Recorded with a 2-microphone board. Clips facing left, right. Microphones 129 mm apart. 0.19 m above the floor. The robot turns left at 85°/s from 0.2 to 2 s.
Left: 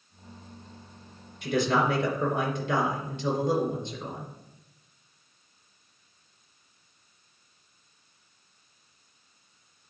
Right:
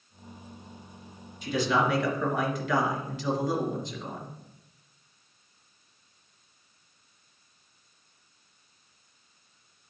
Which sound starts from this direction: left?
A man speaking, at 1.4 s.